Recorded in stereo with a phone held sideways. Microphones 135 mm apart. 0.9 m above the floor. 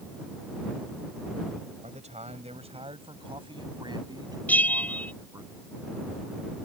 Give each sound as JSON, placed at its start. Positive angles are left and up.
{"t": 1.8, "sound": "a man speaking", "side_deg": -55}
{"t": 4.5, "sound": "a bell", "side_deg": 10}